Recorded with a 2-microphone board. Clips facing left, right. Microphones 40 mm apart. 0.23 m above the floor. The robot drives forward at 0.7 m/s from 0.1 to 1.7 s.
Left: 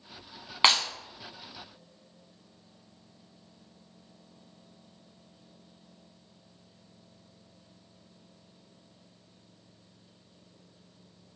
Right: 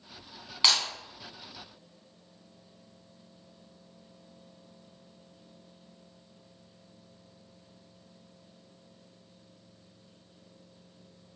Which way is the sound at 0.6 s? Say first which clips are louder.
Left 3 dB; 35° left (ahead or behind).